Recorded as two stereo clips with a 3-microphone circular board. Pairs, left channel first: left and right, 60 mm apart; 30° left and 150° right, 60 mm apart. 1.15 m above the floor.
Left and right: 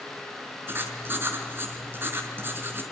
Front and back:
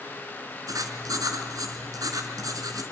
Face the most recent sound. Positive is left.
turn(degrees=-145)